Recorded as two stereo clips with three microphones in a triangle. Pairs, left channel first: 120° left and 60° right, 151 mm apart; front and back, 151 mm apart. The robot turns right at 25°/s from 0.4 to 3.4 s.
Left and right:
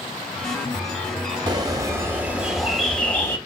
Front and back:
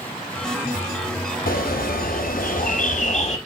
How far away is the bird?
About 1.9 m.